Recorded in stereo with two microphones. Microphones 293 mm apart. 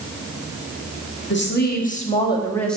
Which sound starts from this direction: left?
A woman speaking, at 1.3 s.